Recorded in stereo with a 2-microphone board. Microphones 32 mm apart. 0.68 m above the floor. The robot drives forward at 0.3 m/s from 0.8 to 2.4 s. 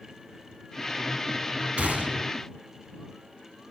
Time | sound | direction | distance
1.8 | a gunshot | 50° right (ahead or behind) | 0.8 m